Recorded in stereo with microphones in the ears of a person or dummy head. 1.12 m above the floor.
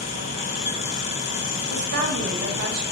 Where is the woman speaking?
55° right (ahead or behind), 0.8 m.